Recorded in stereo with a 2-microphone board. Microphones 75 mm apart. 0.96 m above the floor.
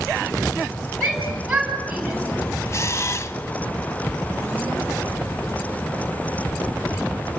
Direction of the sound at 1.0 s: 5° right (ahead or behind).